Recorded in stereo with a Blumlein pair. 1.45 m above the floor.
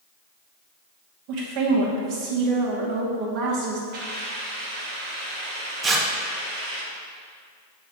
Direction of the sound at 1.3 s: 45° right.